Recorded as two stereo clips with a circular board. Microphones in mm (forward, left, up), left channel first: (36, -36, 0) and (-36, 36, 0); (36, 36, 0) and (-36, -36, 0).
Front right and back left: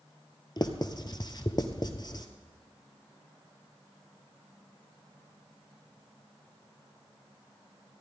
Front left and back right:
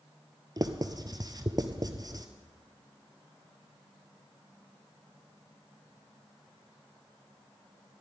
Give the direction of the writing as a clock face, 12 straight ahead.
3 o'clock.